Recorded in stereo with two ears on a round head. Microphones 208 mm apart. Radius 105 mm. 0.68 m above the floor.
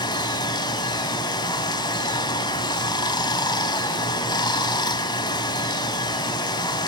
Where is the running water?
20° left (ahead or behind), 0.9 m.